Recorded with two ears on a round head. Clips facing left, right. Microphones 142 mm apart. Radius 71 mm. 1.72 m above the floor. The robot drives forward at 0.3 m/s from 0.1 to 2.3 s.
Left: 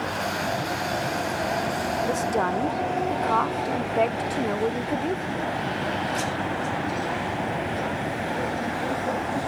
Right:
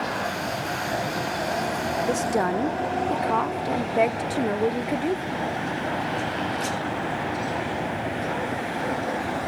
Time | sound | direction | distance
2.1 | a woman speaking | 10° right (ahead or behind) | ?